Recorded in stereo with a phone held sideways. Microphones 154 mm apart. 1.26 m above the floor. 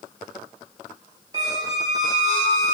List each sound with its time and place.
1.3 s a squeak: 25° right (ahead or behind), 1.2 m